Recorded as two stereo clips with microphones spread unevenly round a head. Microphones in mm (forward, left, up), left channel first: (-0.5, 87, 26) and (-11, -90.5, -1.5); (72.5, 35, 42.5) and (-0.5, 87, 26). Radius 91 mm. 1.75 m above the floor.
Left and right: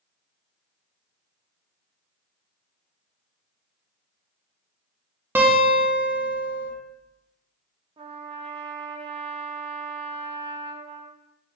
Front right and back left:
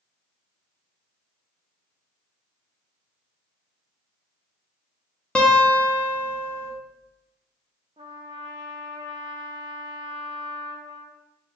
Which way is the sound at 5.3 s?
5° right.